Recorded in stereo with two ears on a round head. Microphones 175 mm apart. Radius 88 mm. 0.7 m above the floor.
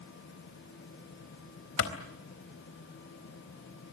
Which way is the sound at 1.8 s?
75° left (ahead or behind).